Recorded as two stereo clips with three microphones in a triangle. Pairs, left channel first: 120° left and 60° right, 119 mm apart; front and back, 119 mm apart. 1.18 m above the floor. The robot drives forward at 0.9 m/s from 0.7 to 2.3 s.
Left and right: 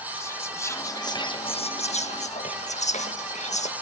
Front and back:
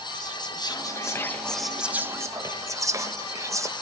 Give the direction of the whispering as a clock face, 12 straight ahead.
10 o'clock.